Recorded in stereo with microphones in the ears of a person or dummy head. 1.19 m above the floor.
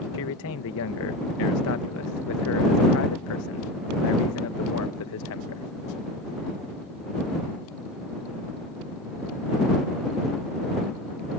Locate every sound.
0.1 s a man speaking: 75° left (ahead or behind)